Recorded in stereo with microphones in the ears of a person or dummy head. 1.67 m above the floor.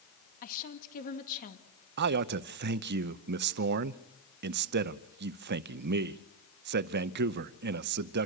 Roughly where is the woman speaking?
Left.